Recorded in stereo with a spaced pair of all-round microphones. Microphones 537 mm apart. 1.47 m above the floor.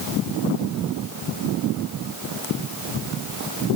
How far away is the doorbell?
I don't hear a doorbell.